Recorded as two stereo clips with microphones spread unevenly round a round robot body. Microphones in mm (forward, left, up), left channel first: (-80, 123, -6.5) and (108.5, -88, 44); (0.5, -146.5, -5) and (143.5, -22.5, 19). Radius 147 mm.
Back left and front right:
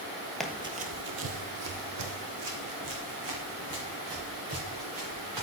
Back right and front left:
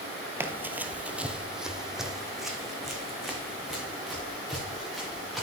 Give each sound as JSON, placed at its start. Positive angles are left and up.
{"t": 0.4, "sound": "running footsteps", "azimuth_deg": 15, "distance_m": 1.0}